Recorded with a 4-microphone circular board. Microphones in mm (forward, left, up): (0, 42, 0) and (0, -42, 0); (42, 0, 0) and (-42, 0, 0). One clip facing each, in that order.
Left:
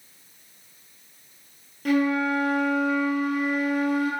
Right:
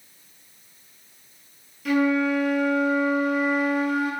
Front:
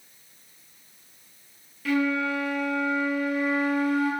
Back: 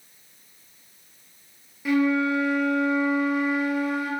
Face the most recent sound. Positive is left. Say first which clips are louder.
# right 1 dB, back 3 dB
turn(degrees=115)